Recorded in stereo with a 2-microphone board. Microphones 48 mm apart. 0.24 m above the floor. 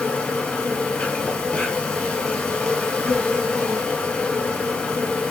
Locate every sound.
0.0 s an insect: 20° left (ahead or behind), 0.8 m